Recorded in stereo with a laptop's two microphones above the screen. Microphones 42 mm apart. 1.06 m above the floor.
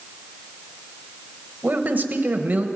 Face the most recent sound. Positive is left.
turn(degrees=-40)  # may be behind; listen again after turning